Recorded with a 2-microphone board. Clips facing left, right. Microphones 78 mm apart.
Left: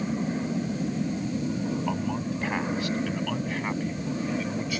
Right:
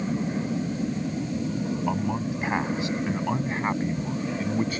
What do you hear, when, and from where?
1.9 s a man speaking: 15° right (ahead or behind); by 4.8 s 40° right (ahead or behind)